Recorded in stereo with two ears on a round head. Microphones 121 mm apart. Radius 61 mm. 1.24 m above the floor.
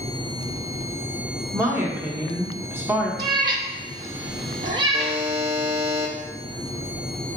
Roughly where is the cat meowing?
Right.